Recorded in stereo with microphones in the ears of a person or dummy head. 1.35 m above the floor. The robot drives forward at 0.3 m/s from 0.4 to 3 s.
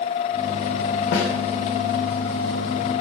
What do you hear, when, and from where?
1.1 s a snare drum: 60° left (ahead or behind), 0.6 m